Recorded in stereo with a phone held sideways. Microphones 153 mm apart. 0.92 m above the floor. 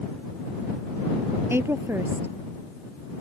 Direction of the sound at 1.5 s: 15° right (ahead or behind).